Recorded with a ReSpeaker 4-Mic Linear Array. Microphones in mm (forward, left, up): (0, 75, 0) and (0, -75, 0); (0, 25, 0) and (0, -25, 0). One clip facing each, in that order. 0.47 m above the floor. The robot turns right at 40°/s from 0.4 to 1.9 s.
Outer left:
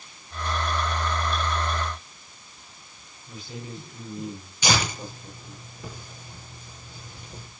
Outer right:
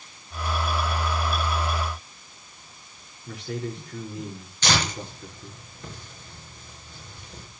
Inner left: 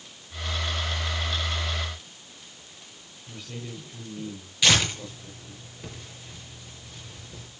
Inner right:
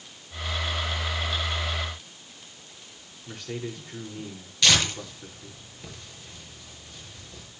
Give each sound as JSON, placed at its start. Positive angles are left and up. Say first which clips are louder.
{"t": 3.3, "sound": "a man speaking", "louder": "outer right 7 dB, inner right 5 dB", "side_deg": -75, "distance_m": 7.0}
{"t": 4.6, "sound": "tearing paper", "louder": "even, even", "side_deg": 10, "distance_m": 6.0}